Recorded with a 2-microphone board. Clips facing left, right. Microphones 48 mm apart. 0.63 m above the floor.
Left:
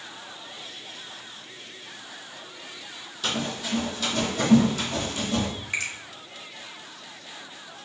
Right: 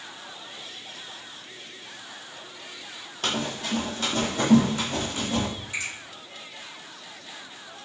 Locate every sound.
3.2 s running footsteps: 50° right (ahead or behind), 0.9 m; by 5.5 s 25° right (ahead or behind), 1.7 m
5.7 s a finger snap: 50° left (ahead or behind), 1.0 m